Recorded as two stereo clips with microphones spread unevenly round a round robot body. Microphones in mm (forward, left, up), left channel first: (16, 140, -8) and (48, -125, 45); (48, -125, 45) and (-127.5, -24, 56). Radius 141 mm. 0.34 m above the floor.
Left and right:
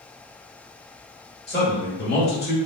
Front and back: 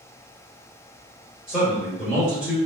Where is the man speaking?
60° left, 1.0 m.